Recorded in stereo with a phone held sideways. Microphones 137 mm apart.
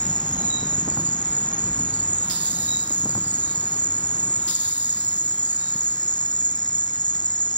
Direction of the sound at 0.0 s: 30° left (ahead or behind).